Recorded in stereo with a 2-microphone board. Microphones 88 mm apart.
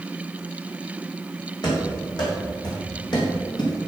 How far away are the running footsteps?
About 4 m.